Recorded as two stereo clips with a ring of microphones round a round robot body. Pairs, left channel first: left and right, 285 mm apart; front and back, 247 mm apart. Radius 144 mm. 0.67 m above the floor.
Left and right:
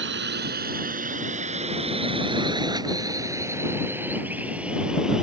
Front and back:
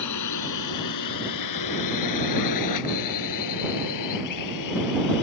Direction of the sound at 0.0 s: 35° right.